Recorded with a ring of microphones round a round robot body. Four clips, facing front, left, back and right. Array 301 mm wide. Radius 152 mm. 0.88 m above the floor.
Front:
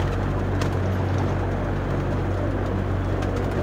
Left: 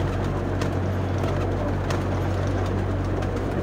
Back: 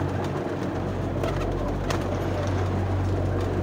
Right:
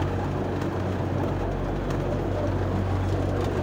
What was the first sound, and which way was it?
Only background noise.